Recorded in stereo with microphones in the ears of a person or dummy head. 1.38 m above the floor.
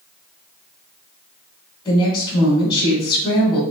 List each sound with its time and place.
1.9 s a woman speaking: 25° left (ahead or behind), 1.2 m